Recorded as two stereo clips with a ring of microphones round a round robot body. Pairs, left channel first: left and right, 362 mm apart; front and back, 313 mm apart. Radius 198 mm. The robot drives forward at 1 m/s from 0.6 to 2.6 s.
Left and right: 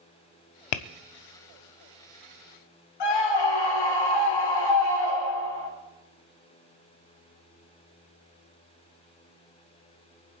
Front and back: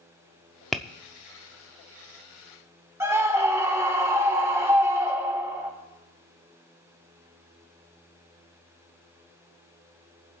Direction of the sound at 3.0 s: 100° left.